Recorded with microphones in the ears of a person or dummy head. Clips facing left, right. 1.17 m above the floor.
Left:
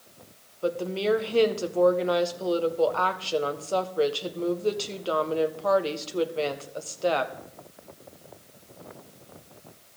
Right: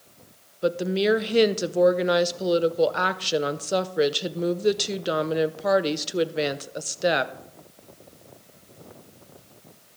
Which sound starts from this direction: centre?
A woman speaking, at 0.6 s.